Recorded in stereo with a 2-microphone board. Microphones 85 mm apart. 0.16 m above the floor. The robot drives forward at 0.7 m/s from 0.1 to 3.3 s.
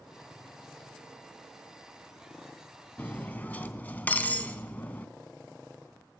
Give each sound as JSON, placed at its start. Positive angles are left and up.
{"t": 3.0, "sound": "cutlery clinking", "side_deg": 20, "distance_m": 0.6}